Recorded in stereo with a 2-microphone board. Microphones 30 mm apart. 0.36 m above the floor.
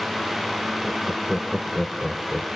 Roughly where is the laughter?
Centre.